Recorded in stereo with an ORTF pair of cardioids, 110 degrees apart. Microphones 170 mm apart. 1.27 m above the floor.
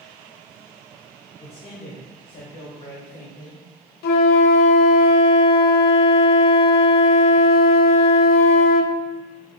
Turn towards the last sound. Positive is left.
turn(degrees=65)